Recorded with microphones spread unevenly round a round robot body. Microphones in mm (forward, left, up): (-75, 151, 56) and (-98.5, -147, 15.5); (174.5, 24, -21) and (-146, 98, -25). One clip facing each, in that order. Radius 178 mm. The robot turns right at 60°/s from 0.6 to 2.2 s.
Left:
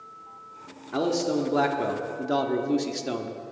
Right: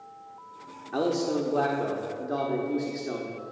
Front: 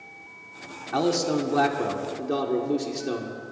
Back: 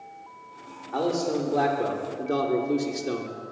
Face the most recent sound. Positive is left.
turn(degrees=75)